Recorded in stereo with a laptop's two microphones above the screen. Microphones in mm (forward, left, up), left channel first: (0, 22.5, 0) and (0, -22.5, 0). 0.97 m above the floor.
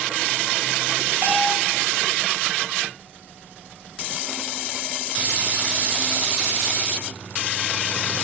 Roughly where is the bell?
Right.